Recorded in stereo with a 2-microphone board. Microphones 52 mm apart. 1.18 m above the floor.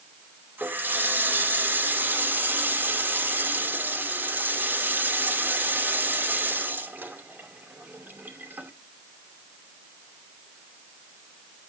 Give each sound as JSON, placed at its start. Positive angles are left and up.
{"t": 0.6, "sound": "a running tap", "side_deg": -40, "distance_m": 2.5}